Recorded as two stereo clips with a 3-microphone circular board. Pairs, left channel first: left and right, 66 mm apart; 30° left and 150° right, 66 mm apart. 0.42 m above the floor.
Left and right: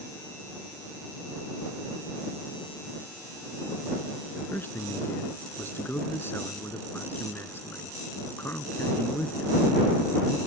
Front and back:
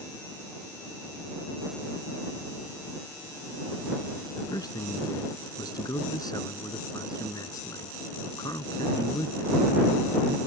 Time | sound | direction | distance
4.4 | a man speaking | 35° left | ?